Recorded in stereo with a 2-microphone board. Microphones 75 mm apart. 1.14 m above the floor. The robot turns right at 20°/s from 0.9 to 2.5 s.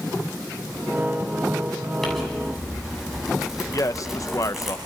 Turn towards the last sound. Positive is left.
turn(degrees=45)  # may be behind; listen again after turning